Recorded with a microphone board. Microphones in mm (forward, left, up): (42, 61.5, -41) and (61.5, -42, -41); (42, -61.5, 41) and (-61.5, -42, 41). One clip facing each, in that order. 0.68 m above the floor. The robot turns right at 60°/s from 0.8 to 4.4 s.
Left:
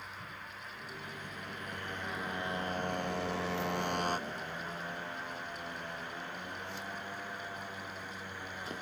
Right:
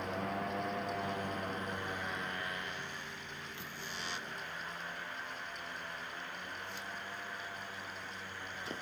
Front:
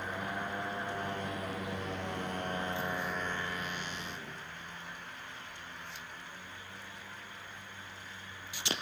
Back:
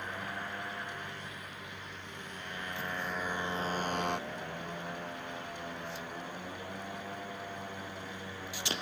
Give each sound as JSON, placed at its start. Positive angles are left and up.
{"t": 0.0, "sound": "a motorcycle", "azimuth_deg": -90}